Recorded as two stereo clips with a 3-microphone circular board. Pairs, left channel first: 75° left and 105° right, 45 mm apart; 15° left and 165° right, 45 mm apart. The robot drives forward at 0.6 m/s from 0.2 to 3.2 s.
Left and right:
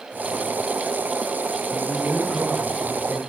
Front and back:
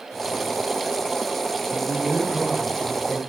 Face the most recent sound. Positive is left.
turn(degrees=130)